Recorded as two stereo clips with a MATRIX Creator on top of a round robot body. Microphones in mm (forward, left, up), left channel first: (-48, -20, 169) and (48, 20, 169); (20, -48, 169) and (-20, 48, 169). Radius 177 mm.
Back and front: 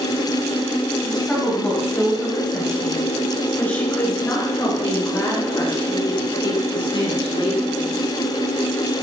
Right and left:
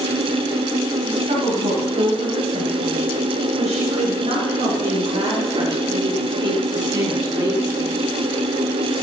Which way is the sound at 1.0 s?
120° left.